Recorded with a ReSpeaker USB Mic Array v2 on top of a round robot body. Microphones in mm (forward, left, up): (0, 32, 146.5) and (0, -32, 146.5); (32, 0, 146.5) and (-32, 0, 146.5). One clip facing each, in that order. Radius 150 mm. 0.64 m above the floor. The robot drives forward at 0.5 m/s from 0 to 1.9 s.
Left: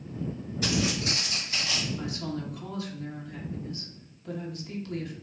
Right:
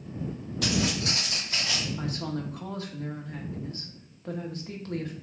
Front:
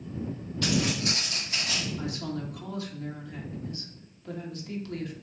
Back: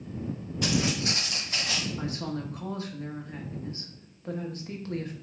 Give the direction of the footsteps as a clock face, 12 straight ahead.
3 o'clock.